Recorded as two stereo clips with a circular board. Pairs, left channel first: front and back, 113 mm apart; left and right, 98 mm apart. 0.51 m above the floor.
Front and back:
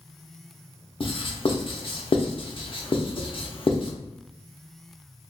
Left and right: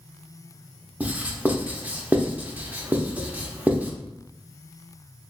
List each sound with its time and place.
1.0 s writing: 20° right, 0.7 m